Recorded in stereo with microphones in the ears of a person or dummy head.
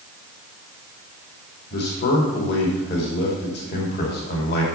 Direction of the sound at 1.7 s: 65° left (ahead or behind).